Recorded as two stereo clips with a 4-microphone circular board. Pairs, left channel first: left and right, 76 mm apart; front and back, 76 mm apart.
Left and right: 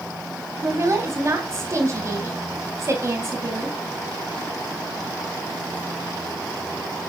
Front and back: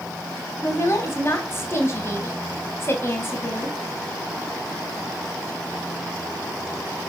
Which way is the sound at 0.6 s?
50° right.